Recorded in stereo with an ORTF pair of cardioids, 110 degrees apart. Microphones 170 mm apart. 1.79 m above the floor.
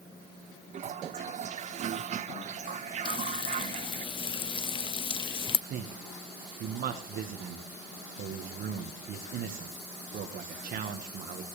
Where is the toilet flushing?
45° right, 0.8 m.